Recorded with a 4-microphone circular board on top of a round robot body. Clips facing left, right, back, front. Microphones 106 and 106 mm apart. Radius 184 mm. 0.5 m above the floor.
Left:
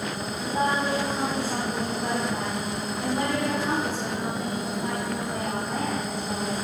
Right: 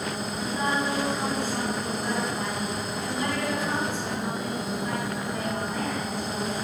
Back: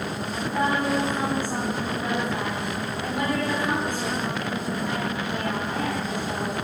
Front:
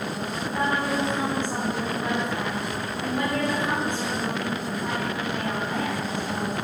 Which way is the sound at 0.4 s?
100° left.